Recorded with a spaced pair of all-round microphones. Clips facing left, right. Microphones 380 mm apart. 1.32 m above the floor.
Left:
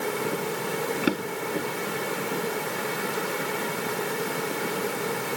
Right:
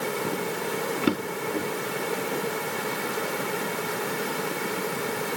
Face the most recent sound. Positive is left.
turn(degrees=-5)  # may be behind; listen again after turning